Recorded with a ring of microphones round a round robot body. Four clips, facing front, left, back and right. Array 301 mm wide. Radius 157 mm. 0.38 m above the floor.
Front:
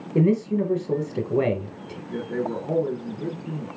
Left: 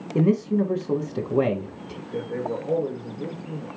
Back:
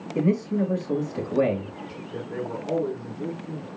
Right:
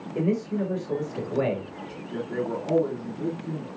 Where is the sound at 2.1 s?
55° right, 3 m.